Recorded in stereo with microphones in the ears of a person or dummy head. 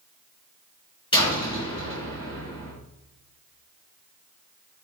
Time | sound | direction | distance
1.1 | a door slam | 20° left (ahead or behind) | 3.5 m